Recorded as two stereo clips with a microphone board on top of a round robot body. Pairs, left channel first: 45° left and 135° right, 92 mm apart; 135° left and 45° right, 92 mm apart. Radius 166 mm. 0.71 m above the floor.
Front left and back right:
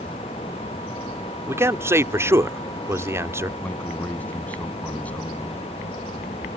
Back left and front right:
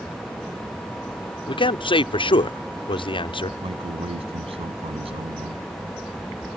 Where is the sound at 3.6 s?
30° right.